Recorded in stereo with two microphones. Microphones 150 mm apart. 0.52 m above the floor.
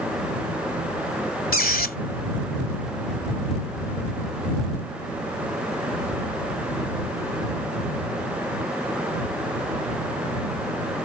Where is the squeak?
70° left (ahead or behind).